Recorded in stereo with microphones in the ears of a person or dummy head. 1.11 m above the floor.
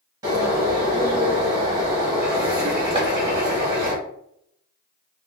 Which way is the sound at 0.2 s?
20° right (ahead or behind).